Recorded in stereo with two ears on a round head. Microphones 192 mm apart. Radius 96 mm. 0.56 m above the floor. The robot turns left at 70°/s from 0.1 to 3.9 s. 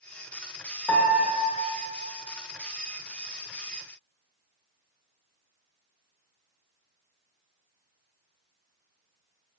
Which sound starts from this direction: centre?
A piano, at 0.9 s.